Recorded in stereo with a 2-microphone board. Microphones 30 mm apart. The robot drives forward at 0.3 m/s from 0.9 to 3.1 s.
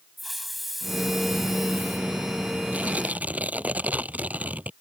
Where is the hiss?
Centre (ahead or behind).